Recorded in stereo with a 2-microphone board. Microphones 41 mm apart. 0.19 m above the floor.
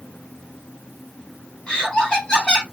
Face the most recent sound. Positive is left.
turn(degrees=25)  # may be behind; listen again after turning